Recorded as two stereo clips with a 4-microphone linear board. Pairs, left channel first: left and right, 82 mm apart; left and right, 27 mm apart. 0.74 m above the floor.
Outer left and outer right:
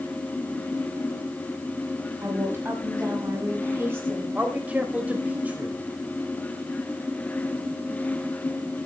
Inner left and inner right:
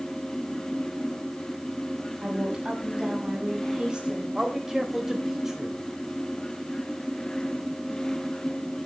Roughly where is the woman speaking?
Right.